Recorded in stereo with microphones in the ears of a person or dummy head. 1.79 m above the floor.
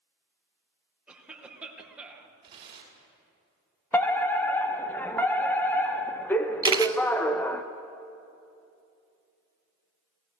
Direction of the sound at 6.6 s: 25° right (ahead or behind).